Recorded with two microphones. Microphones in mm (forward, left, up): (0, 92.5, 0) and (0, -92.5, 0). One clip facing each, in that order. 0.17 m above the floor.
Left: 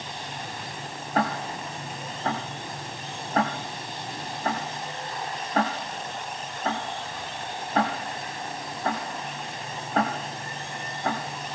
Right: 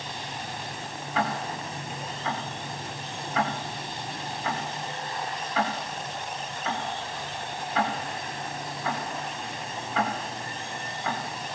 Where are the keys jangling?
I don't hear keys jangling.